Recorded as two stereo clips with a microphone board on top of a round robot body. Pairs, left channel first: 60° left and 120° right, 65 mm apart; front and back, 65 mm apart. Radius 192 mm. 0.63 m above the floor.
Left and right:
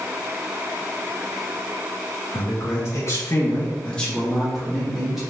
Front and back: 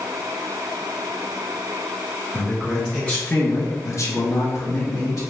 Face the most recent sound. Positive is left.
turn(degrees=-35)